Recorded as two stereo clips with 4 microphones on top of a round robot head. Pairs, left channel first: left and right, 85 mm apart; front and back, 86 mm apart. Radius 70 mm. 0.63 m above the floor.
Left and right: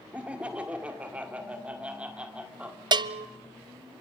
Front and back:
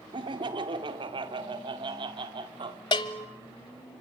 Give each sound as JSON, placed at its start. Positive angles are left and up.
{"t": 0.1, "sound": "laughter", "azimuth_deg": -165, "distance_m": 2.0}
{"t": 2.9, "sound": "a bell", "azimuth_deg": -55, "distance_m": 0.8}